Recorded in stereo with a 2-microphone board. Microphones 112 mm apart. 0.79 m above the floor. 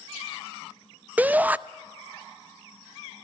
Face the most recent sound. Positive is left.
turn(degrees=-15)  # may be behind; listen again after turning